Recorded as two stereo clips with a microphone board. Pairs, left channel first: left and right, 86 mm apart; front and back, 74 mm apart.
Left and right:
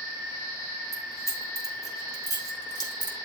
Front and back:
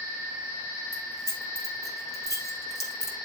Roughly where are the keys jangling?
Ahead left.